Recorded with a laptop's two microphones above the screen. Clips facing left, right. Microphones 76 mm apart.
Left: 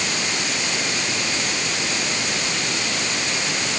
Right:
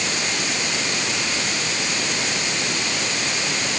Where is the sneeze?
No sneeze in this recording.